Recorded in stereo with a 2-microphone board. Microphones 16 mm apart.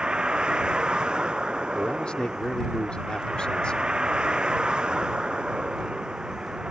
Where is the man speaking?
75° left (ahead or behind).